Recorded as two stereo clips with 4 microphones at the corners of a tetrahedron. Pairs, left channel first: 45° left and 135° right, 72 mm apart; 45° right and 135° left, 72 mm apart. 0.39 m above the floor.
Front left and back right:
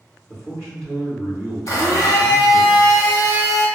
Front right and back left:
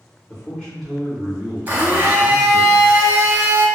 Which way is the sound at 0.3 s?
40° right.